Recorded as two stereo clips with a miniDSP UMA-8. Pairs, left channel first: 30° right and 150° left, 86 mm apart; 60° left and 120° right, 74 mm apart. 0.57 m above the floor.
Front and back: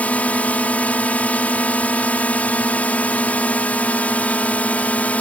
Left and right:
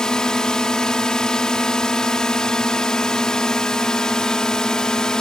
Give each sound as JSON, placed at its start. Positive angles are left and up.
{"t": 0.0, "sound": "a drone", "azimuth_deg": 0}